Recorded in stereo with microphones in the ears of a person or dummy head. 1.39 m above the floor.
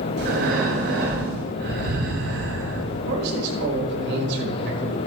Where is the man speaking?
60° right (ahead or behind), 5.5 m.